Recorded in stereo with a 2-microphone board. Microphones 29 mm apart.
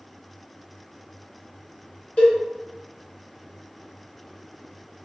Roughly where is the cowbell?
Left.